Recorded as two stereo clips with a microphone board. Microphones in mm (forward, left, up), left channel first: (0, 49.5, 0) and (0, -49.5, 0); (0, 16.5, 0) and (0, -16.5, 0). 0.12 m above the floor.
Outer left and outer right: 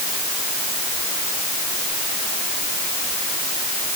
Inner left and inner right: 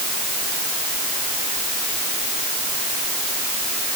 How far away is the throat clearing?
I don't hear throat clearing.